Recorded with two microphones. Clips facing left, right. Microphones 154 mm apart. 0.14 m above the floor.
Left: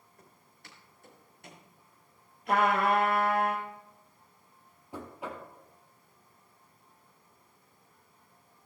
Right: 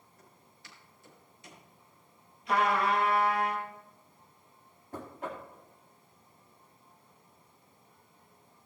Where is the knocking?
10° left (ahead or behind), 2.5 m.